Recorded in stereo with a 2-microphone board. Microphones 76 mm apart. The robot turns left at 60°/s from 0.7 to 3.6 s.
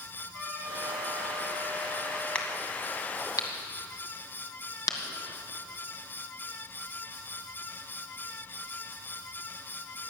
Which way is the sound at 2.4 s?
15° left (ahead or behind).